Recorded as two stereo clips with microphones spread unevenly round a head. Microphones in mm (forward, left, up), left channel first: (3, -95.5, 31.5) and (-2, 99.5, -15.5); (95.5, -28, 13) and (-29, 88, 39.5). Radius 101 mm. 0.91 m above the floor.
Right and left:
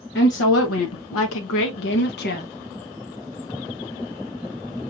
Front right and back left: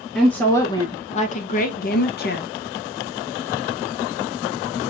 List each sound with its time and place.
0.1 s a woman speaking: 125° right, 0.9 m; by 2.5 s 40° right, 1.2 m